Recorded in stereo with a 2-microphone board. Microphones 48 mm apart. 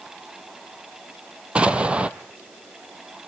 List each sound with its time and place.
1.6 s an explosion: 25° right (ahead or behind), 0.9 m